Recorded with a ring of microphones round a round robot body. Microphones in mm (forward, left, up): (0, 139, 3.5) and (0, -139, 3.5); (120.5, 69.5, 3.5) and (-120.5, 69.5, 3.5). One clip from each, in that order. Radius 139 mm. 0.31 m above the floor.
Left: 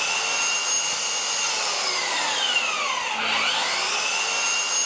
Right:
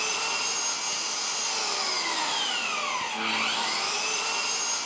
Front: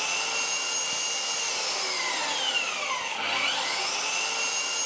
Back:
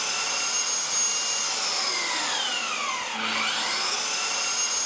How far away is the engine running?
About 2.5 m.